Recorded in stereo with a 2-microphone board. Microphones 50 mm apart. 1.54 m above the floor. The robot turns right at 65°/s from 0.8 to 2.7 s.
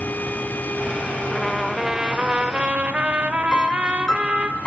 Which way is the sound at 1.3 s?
10° left (ahead or behind).